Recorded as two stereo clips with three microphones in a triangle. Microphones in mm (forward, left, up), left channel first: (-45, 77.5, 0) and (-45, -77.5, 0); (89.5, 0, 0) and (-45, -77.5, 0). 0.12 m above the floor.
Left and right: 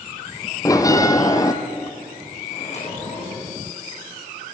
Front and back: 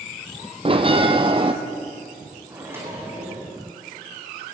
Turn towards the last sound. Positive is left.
turn(degrees=135)